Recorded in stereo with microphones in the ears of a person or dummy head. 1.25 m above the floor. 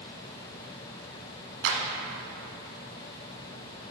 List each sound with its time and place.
1.6 s a clap: 70° right (ahead or behind), 1.2 m